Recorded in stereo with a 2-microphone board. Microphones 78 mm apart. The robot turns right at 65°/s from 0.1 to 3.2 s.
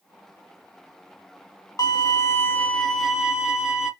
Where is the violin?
105° left, 1.0 m; by 3.9 s 165° right, 1.0 m.